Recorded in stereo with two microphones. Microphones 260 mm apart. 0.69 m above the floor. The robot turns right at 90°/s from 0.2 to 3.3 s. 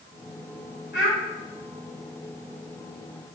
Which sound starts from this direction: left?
A child speaking, at 0.9 s.